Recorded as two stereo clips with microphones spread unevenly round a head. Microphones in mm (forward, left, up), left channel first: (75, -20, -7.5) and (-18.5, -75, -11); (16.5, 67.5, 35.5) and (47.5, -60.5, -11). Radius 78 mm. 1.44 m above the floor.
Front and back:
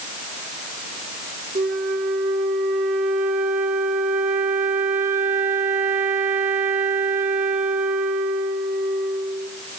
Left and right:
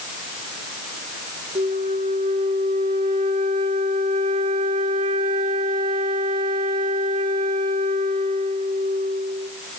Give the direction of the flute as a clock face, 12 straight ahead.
5 o'clock.